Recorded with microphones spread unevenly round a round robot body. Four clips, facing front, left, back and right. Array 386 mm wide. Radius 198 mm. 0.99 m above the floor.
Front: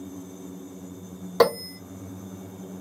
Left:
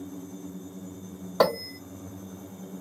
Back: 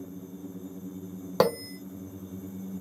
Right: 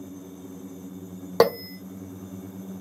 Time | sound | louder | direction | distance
1.4 | a bell | right 3 dB, front 4 dB | 120° right | 0.9 m